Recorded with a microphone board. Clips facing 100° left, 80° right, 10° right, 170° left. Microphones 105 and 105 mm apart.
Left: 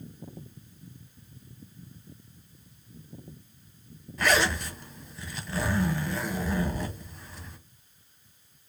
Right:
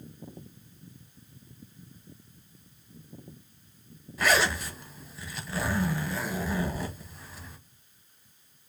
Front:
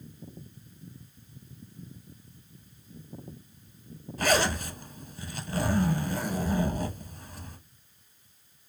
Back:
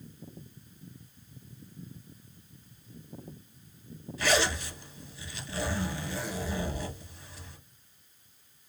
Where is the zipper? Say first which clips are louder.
Even, front 2 dB; 5° left, 0.8 m.